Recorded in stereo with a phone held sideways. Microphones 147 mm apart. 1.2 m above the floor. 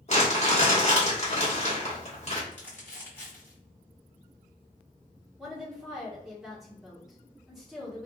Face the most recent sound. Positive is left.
turn(degrees=-5)  # may be behind; listen again after turning